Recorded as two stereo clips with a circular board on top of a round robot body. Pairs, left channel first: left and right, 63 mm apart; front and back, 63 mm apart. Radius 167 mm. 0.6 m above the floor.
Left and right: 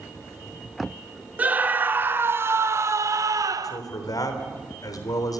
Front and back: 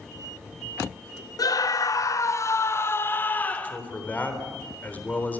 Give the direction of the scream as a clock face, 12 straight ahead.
1 o'clock.